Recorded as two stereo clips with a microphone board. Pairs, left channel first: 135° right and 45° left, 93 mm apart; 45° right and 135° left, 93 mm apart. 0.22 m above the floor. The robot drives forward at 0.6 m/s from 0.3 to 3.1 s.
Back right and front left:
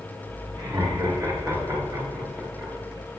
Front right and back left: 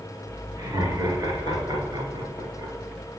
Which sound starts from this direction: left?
Laughter, at 0.6 s.